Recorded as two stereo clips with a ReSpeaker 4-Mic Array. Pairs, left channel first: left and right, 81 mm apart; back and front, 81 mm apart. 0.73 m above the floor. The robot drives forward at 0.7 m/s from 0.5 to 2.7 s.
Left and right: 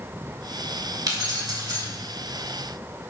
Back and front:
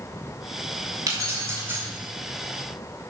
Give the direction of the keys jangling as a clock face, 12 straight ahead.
2 o'clock.